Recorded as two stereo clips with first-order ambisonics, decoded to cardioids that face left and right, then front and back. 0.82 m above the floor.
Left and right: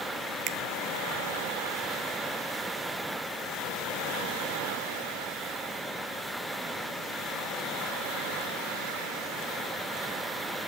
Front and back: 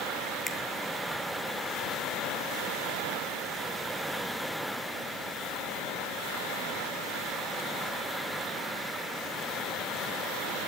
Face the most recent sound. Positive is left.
turn(degrees=-70)